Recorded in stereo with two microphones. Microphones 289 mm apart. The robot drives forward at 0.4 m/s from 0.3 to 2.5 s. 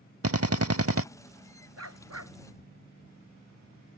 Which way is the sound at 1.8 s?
60° right (ahead or behind).